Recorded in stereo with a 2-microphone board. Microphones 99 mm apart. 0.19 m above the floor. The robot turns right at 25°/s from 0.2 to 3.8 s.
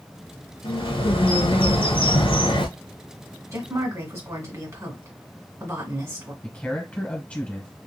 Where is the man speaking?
15° left (ahead or behind), 1.6 m.